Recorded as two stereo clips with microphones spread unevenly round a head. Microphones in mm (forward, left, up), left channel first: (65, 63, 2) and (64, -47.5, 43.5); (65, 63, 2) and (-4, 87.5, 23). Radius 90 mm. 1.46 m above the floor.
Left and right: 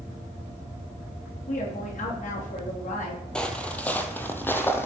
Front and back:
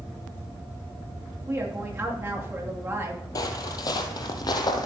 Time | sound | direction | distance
1.5 | a woman speaking | 100° left | 3 m
3.4 | footsteps | 20° right | 1.6 m